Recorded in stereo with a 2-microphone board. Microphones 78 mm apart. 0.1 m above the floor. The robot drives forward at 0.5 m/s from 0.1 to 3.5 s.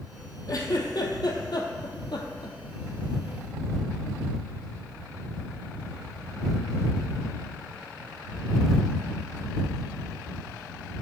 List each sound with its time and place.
0.5 s a giggle: 50° left (ahead or behind), 1.5 m; by 2.6 s 65° left (ahead or behind), 1.3 m